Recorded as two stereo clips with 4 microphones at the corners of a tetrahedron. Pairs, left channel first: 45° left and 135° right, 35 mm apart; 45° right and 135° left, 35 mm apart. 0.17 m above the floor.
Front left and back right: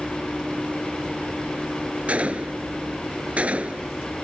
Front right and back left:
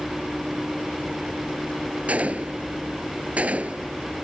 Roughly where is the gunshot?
Behind.